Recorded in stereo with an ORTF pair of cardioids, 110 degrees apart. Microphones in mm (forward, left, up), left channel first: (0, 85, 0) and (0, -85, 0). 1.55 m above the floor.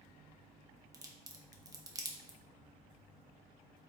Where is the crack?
20° right, 0.6 m.